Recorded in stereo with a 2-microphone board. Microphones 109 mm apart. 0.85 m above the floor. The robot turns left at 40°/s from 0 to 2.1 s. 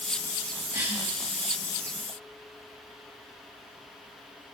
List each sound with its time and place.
0.7 s a cough: 25° right (ahead or behind), 1.8 m; by 1.1 s 40° right (ahead or behind), 1.8 m